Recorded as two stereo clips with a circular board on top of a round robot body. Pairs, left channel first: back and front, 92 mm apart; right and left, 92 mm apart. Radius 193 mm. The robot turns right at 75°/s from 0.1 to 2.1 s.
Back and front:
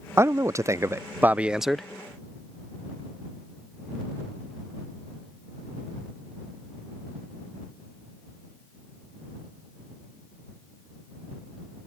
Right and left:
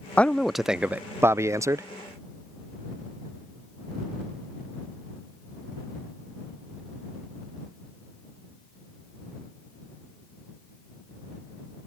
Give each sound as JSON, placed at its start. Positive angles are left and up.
{"t": 0.2, "sound": "a man speaking", "azimuth_deg": -25}